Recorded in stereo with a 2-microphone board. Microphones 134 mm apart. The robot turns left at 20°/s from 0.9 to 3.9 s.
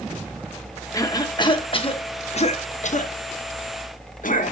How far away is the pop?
I don't hear a pop.